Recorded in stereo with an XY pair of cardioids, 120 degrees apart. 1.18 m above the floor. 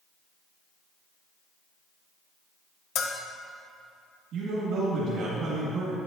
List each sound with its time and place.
3.0 s a bell: 70° left, 0.9 m
4.3 s a man speaking: 70° right, 2.5 m